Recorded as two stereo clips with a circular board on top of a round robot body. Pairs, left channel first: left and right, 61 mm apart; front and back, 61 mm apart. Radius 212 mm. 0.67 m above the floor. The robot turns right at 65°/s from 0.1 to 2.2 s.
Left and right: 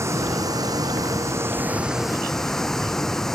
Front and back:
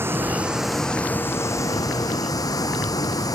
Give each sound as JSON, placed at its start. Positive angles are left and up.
{"t": 0.0, "sound": "running water", "azimuth_deg": -130}